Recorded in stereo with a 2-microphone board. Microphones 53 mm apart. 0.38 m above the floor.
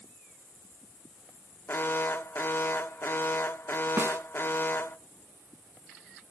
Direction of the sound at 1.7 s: 40° left (ahead or behind).